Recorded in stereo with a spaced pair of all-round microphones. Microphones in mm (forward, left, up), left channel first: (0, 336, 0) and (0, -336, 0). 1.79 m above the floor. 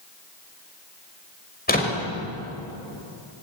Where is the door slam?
15° left (ahead or behind), 5.5 m.